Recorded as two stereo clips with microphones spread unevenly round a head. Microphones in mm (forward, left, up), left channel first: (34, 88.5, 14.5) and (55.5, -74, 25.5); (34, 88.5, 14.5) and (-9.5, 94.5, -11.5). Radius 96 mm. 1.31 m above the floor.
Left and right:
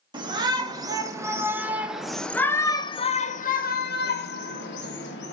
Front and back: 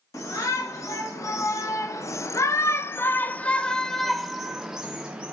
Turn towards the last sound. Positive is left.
turn(degrees=110)